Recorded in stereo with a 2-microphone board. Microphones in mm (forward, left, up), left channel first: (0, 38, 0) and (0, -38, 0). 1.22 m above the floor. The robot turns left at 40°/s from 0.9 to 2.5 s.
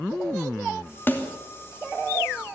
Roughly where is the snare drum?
Left.